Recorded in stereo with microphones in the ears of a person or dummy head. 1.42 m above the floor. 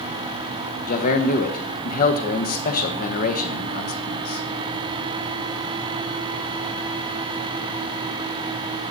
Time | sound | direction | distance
0.9 | a man speaking | 45° left (ahead or behind) | 1.3 m